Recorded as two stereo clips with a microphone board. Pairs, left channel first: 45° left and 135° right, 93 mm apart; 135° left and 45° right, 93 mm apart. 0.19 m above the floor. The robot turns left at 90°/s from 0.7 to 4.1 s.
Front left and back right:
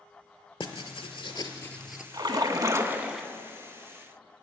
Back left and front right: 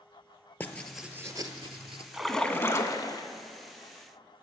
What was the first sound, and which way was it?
Writing, 65° left.